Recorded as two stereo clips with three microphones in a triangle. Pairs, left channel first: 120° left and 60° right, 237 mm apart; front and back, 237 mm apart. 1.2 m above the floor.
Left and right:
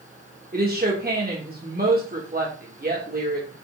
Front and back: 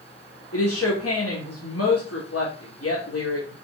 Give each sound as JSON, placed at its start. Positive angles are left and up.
{"t": 0.5, "sound": "a woman speaking", "azimuth_deg": -10, "distance_m": 3.0}